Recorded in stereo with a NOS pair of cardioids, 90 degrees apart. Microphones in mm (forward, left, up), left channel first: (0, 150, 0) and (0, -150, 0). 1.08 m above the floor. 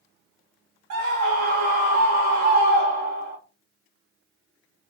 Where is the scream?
70° right, 0.8 m.